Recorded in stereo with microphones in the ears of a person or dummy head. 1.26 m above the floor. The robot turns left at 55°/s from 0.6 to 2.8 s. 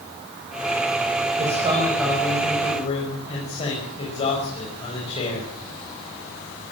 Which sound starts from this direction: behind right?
A man speaking, at 1.4 s.